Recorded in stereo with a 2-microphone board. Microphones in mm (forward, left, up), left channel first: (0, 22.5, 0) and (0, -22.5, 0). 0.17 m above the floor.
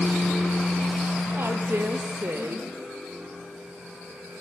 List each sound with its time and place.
1.4 s a woman speaking: 65° right (ahead or behind), 4 m